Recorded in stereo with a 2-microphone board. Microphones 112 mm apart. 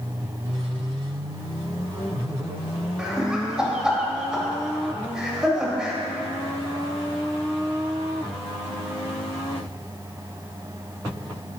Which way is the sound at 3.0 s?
5° right (ahead or behind).